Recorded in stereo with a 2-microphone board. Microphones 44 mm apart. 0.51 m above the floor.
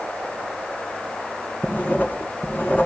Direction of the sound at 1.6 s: 40° left (ahead or behind).